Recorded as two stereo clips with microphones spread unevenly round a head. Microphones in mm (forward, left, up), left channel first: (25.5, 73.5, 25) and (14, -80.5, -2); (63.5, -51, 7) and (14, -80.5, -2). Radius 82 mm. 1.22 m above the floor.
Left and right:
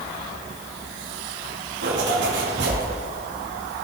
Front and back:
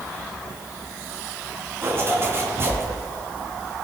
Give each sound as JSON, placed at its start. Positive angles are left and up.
{"t": 1.8, "sound": "a zipper", "azimuth_deg": -105, "distance_m": 2.5}